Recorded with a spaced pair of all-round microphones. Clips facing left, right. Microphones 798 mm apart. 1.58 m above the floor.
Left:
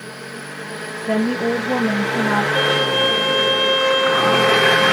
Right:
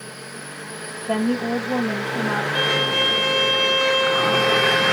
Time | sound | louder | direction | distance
1.1 | a woman speaking | left 3 dB | 85° left | 2 m
2.5 | a violin | left 5 dB | 40° right (ahead or behind) | 5 m